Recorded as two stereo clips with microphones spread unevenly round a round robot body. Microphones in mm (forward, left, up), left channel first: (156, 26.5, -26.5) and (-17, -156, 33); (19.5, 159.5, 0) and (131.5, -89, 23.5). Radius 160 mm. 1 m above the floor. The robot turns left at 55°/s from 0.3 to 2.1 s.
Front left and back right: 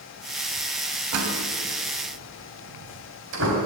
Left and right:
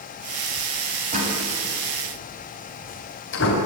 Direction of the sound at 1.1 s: 135° right.